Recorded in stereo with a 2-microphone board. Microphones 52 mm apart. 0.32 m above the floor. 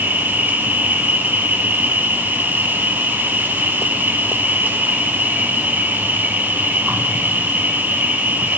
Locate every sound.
0.0 s an insect: 40° right (ahead or behind), 1.8 m